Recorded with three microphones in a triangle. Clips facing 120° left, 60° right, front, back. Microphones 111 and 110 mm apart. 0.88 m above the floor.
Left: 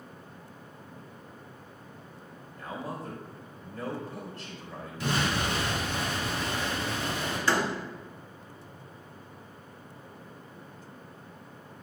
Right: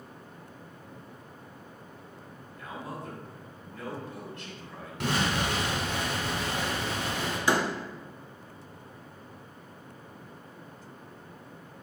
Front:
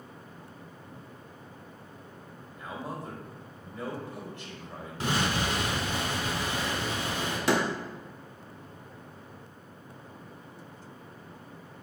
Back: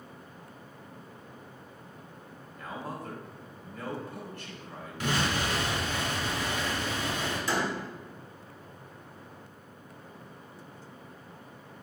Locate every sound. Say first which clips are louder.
2.6 s a man speaking: left 2 dB, front 1 dB; 65° left, 3 m
5.0 s an explosion: right 1 dB, front 1 dB; 55° right, 3.5 m
7.5 s a door slam: right 1 dB, front 5 dB; 15° left, 0.8 m